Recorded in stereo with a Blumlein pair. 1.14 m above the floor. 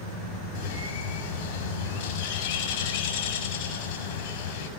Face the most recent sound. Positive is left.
turn(degrees=50)